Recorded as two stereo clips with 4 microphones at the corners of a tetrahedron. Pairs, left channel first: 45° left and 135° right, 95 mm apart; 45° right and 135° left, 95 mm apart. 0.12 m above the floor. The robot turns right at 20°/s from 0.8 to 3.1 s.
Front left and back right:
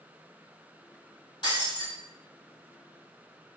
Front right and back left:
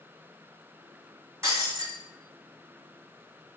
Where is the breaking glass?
80° left, 1.4 m; by 1.9 s 90° left, 1.4 m.